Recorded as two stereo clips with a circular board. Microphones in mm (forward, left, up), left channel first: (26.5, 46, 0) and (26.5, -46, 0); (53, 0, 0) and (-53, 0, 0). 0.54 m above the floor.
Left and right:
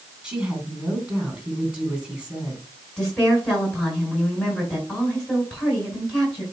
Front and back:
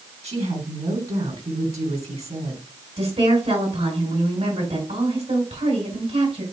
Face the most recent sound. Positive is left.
turn(degrees=175)